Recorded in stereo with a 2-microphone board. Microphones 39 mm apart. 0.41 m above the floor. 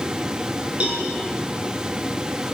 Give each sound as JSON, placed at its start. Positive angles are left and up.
{"t": 0.8, "sound": "a cowbell", "side_deg": -35, "distance_m": 5.5}